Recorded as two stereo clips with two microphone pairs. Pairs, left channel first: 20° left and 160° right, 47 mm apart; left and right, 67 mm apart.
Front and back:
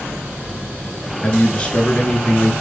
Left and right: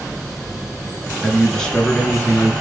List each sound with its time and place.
1.2 s a man speaking: straight ahead, 1.2 m; by 2.5 s 50° left, 1.4 m